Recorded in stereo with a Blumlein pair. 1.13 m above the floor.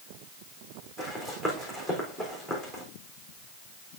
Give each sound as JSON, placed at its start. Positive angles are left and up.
{"t": 1.0, "sound": "running footsteps", "azimuth_deg": -15, "distance_m": 4.0}